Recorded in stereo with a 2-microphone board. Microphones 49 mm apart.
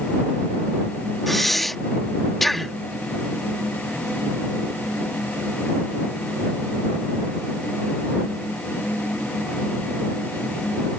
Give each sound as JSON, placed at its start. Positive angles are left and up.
{"t": 1.3, "sound": "breathing", "side_deg": 5}